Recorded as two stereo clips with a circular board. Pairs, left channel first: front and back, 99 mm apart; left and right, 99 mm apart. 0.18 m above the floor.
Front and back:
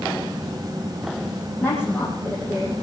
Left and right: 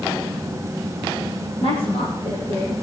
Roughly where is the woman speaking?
Left.